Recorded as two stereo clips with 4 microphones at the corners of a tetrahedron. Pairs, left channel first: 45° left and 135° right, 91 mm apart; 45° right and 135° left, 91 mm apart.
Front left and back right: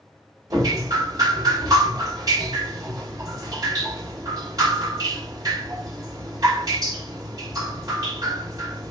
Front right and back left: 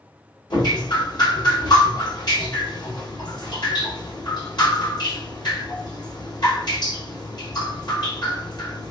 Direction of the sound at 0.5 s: 85° right.